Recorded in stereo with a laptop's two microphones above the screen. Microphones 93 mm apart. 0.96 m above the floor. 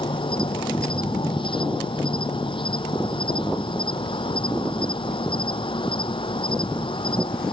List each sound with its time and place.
0.0 s an insect: 65° left (ahead or behind)